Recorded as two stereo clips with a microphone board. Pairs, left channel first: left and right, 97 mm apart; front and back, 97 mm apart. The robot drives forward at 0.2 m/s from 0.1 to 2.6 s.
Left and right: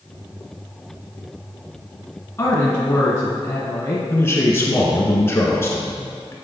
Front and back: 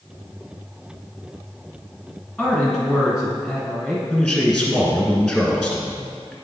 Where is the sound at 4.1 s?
90° left, 1.6 m.